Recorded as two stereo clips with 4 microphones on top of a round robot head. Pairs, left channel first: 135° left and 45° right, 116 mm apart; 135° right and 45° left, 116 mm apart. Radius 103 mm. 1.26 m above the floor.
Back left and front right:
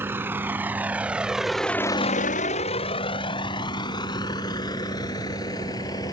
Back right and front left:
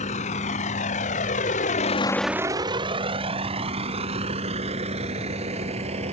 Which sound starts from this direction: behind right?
A vehicle, at 0.0 s.